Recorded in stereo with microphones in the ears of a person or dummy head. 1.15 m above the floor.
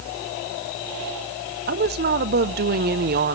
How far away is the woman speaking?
About 0.5 m.